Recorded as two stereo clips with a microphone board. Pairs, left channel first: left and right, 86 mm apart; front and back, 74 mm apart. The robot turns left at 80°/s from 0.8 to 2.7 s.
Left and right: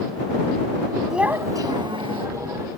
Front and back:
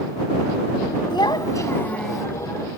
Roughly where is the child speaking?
Ahead.